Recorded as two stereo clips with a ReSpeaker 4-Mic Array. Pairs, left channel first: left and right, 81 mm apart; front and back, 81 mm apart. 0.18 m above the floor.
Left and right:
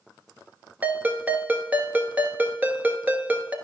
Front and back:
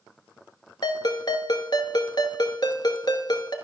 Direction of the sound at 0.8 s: 20° right.